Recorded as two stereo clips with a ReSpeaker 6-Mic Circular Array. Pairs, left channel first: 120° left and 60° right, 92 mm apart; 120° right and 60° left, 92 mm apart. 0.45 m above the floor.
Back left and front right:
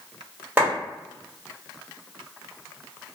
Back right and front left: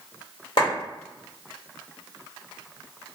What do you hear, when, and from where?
0.6 s a clap: 130° right, 1.9 m